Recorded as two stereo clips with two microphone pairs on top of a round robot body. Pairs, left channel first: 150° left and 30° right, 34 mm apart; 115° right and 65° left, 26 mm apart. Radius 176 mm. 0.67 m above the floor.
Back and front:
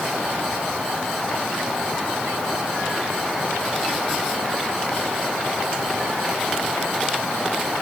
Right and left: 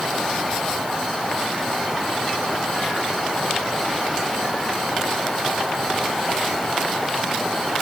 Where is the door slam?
No door slam in this recording.